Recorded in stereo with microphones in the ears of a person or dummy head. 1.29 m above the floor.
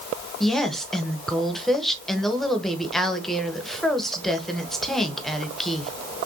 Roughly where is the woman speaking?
Centre.